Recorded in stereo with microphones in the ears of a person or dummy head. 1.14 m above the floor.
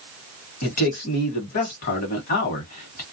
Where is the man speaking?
50° left (ahead or behind), 1.3 m.